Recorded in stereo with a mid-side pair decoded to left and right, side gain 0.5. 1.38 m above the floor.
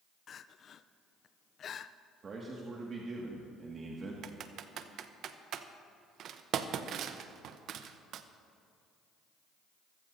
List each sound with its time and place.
0.3 s crying: 50° left, 0.5 m
2.2 s a man speaking: 40° right, 1.9 m
4.2 s typing on a keyboard: 65° right, 0.8 m